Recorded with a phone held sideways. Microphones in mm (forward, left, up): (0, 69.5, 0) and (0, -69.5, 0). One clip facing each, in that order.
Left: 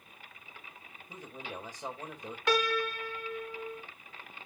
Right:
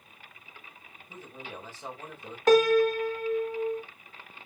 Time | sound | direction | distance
1.1 | a man speaking | 15° left (ahead or behind) | 4 m
2.5 | a piano | 45° right (ahead or behind) | 1.1 m